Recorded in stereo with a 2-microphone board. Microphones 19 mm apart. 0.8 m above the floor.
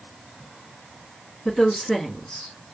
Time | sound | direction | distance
1.4 | a woman speaking | 60° left (ahead or behind) | 1.8 m